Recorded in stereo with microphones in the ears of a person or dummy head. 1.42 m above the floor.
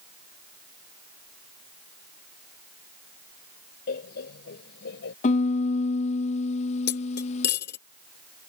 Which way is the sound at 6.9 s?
60° left (ahead or behind).